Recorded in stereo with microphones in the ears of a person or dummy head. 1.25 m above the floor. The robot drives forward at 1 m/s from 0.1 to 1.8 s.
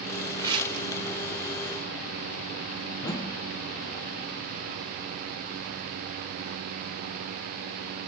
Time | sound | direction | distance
0.4 | tearing paper | 30° right (ahead or behind) | 2 m
3.0 | a whoosh | 25° left (ahead or behind) | 2.0 m